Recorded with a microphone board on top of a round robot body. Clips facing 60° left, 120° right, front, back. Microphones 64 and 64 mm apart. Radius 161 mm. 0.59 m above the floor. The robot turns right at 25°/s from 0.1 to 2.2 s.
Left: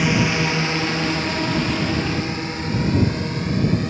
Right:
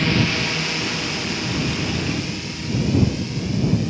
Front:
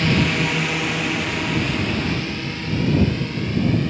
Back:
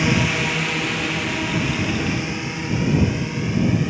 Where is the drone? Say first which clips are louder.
Left 2 dB, front 1 dB; 120° left; by 3.9 s 100° left.